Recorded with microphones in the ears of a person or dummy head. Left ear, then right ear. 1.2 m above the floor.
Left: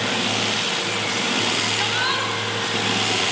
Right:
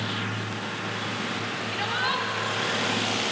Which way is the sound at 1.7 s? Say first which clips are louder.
Left 5 dB; 5° left (ahead or behind).